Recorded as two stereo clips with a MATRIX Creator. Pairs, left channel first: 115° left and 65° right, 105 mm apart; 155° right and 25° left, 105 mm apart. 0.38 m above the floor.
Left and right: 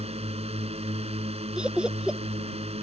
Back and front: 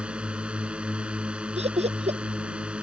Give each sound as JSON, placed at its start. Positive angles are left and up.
{"t": 0.0, "sound": "a drone", "azimuth_deg": -55}
{"t": 1.6, "sound": "laughter", "azimuth_deg": 15}